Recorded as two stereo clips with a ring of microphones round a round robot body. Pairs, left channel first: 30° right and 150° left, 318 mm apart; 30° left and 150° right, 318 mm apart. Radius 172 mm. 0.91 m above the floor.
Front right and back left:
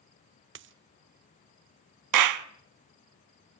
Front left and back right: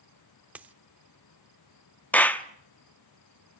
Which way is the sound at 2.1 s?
115° left.